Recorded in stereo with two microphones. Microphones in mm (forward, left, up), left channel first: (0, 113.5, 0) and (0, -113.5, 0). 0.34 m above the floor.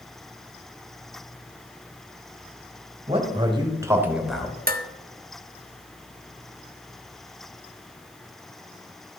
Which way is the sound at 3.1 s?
25° right (ahead or behind).